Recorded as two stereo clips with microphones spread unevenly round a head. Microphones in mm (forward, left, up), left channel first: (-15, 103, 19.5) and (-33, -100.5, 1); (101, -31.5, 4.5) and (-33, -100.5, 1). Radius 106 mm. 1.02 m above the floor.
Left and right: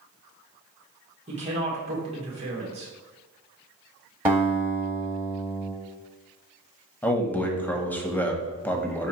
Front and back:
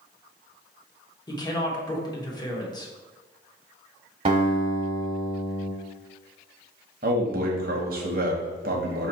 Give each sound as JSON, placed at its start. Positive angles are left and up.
{"t": 1.3, "sound": "a woman speaking", "azimuth_deg": -35, "distance_m": 1.2}
{"t": 4.2, "sound": "a guitar", "azimuth_deg": -175, "distance_m": 1.0}
{"t": 7.0, "sound": "a man speaking", "azimuth_deg": 170, "distance_m": 0.7}